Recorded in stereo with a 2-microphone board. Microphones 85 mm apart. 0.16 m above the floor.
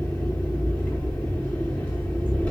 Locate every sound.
0.0 s an engine running: 15° left (ahead or behind), 6 m